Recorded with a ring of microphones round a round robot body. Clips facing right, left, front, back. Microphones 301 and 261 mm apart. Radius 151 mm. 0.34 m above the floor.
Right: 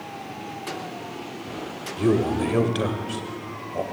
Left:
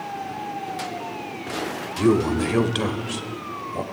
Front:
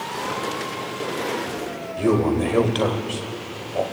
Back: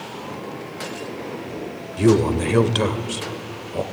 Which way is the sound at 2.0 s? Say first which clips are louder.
Left 2 dB, back 2 dB; 155° left.